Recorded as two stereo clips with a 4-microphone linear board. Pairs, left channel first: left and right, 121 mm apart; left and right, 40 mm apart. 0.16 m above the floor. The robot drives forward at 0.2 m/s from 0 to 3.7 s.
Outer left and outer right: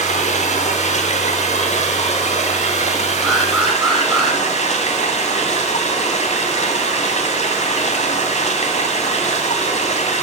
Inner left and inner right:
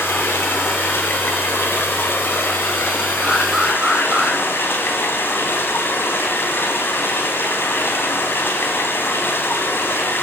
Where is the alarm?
35° right (ahead or behind), 8 m.